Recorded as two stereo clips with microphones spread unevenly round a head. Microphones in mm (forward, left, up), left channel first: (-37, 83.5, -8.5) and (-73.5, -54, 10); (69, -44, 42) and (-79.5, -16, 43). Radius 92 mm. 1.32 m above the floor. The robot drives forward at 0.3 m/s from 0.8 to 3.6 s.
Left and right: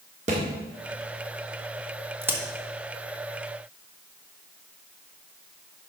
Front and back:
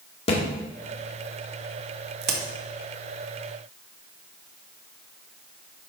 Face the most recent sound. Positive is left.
turn(degrees=180)